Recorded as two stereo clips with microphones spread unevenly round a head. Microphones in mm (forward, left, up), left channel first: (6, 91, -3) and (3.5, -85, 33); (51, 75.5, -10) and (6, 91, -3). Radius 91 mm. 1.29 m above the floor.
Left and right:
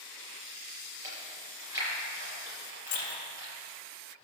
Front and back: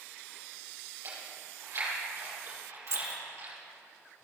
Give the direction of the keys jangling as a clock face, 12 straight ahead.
7 o'clock.